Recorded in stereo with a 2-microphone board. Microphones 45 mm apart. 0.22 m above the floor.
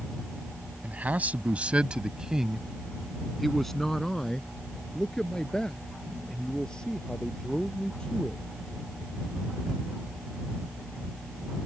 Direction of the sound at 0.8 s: 35° right (ahead or behind).